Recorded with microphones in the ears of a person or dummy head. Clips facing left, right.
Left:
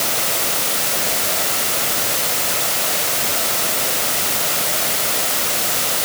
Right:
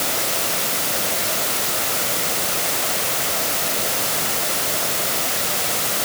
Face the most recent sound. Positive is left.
No sound to turn to.